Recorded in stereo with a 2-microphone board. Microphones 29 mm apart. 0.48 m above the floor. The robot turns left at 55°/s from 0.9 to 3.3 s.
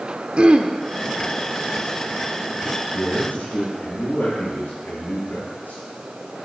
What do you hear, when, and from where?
0.4 s throat clearing: 40° right (ahead or behind), 0.8 m
2.9 s a man speaking: 65° left (ahead or behind), 7 m; by 5.8 s 80° left, 7 m